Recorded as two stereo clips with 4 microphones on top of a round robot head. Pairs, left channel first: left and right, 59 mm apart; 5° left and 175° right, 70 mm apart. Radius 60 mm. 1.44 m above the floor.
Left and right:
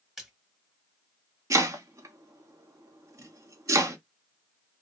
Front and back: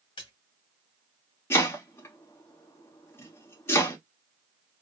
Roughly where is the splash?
Ahead.